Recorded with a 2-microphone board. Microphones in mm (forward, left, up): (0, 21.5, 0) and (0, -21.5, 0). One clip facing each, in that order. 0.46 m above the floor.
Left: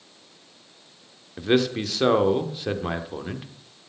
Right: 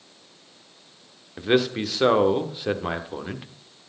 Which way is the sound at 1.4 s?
5° right (ahead or behind).